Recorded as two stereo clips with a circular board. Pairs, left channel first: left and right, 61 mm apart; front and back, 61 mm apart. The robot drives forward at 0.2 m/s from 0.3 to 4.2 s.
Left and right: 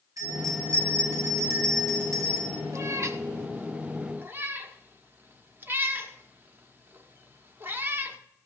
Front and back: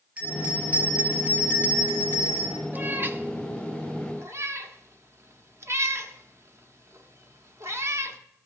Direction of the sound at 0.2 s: 110° right.